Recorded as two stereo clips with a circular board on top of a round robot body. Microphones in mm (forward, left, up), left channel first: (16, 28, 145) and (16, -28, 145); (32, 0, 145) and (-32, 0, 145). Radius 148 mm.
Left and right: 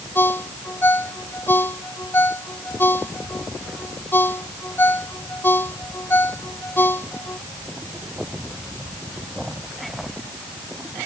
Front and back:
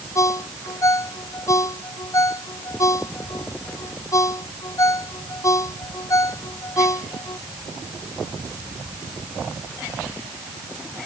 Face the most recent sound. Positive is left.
turn(degrees=40)